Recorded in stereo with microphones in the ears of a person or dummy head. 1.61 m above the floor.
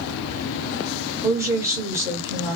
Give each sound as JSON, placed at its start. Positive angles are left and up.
{"t": 1.2, "sound": "a woman speaking", "side_deg": -20, "distance_m": 1.9}